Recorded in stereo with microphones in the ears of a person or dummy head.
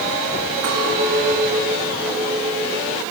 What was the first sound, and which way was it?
A clink, 65° right (ahead or behind).